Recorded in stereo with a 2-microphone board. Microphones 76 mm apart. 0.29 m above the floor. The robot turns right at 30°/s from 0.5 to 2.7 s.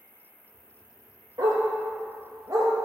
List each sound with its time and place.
0.0 s an insect: 30° left, 1.2 m; by 2.9 s 95° left, 1.2 m
1.4 s a dog barking: 90° right, 1.2 m; by 2.7 s 50° right (ahead or behind), 1.2 m